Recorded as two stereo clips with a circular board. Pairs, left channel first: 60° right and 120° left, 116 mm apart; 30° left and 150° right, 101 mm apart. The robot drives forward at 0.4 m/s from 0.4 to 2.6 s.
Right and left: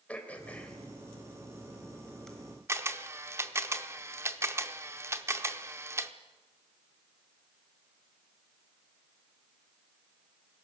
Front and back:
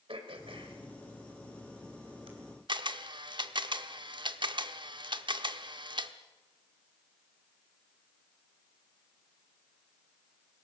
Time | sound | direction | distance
0.1 | throat clearing | 135° right | 2.5 m
2.7 | a camera shutter | 175° right | 0.9 m